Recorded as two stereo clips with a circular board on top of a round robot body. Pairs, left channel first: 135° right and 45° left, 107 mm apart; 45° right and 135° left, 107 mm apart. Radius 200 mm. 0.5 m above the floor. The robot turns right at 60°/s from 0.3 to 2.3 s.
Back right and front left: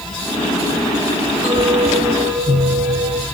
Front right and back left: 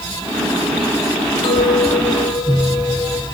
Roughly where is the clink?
Ahead.